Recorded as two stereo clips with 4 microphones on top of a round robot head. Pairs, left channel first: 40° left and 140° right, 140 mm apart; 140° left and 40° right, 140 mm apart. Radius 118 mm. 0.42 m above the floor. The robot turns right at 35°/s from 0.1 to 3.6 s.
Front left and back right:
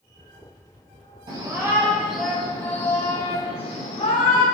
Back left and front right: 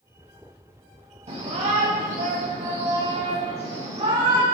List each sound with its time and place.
1.3 s a shout: 80° right, 3.5 m; by 4.4 s straight ahead, 3.5 m